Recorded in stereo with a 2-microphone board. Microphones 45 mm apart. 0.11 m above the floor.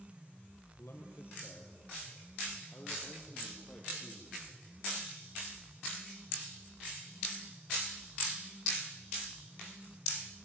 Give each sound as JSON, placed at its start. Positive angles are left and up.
{"t": 0.8, "sound": "a man speaking", "side_deg": 60, "distance_m": 3.0}